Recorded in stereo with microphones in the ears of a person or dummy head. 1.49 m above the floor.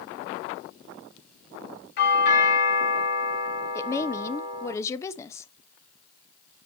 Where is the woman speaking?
15° left (ahead or behind), 0.6 m.